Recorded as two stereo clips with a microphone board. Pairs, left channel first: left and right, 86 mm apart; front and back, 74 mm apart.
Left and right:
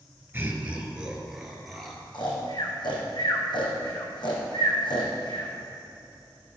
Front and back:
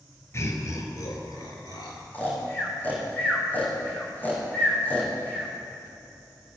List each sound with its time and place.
0.3 s laughter: 35° right, 2 m; by 2.0 s 5° left, 3 m
2.1 s snoring: 65° left, 3.5 m